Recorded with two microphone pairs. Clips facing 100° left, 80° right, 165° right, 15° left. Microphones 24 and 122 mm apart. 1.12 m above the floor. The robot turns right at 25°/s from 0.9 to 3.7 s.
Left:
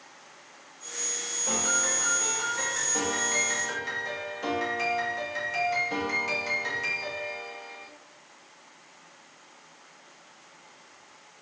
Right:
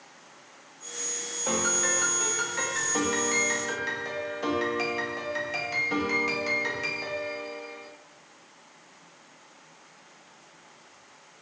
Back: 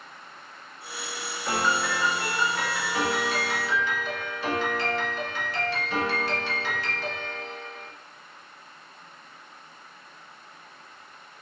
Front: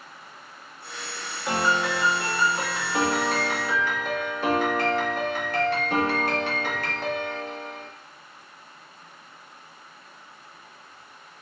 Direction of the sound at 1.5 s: 65° right.